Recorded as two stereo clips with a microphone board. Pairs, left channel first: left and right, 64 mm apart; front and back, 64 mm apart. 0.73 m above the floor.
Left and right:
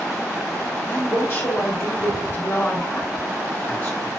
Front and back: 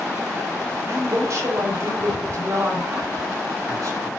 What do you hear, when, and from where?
0.9 s a woman speaking: 140° left, 4 m